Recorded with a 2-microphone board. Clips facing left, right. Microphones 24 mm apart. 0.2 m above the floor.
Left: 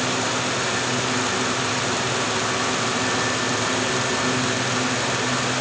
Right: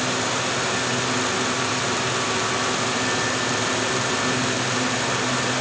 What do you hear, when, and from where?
Only background noise.